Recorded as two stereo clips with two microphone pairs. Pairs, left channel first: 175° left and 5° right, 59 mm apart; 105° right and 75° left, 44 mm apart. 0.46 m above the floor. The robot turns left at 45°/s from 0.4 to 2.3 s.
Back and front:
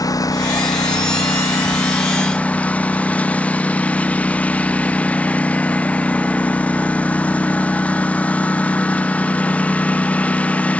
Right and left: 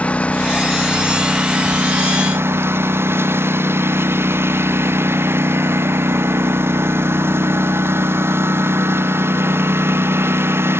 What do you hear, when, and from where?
0.0 s a lawn mower: 165° right; by 10.8 s 105° left